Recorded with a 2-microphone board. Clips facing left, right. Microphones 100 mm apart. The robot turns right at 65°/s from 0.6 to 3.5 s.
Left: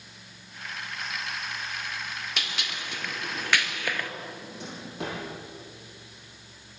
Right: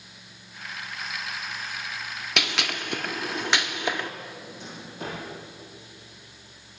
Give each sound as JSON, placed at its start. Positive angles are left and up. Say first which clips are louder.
{"t": 2.4, "sound": "a gunshot", "louder": "right 6 dB", "side_deg": -80, "distance_m": 1.4}
{"t": 4.3, "sound": "a drawer", "louder": "left 1 dB", "side_deg": 65, "distance_m": 10.0}